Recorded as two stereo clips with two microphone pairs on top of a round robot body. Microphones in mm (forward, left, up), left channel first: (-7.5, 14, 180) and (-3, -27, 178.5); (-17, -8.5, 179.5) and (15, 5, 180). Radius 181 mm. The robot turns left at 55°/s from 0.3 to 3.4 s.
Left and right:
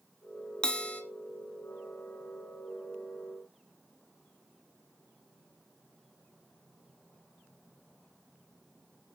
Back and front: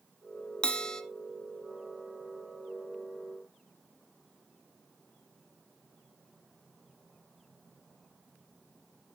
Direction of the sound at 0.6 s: 155° left.